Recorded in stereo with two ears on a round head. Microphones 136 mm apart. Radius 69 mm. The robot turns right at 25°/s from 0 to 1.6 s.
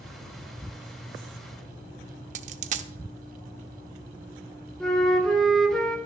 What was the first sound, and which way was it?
A dropped coin, 50° right (ahead or behind).